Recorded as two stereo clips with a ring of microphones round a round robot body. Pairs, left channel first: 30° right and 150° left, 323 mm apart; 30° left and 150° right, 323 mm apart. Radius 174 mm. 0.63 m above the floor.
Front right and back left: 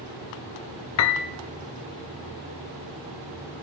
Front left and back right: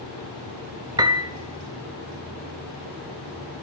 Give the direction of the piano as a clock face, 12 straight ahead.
2 o'clock.